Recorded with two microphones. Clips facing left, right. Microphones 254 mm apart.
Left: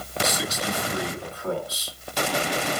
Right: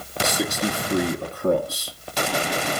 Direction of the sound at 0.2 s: 55° right (ahead or behind).